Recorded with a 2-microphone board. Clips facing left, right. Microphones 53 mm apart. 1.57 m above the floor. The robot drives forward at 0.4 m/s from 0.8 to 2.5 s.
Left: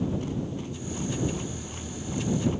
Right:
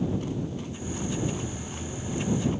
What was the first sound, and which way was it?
Only background noise.